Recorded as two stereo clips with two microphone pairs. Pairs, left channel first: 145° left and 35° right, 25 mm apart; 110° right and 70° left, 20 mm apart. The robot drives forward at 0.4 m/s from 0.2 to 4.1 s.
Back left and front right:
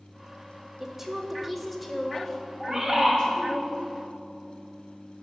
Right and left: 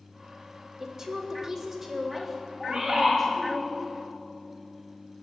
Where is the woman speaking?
30° left, 0.9 m; by 3.6 s 160° left, 1.1 m.